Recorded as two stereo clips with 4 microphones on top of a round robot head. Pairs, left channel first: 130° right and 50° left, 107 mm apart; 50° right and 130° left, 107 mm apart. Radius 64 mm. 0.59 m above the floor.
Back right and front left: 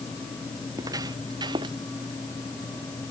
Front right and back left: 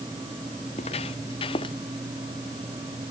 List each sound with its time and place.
0.7 s footsteps: 15° right; by 1.8 s straight ahead